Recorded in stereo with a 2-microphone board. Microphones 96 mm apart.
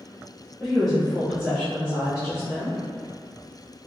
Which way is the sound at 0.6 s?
5° left (ahead or behind).